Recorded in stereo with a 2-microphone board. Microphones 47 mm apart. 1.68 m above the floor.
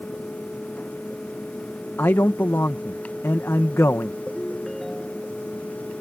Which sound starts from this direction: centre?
A ringtone, at 4.3 s.